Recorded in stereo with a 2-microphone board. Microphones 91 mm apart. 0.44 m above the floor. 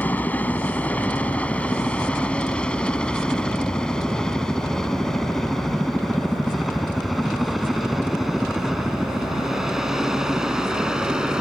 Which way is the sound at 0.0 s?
20° left (ahead or behind).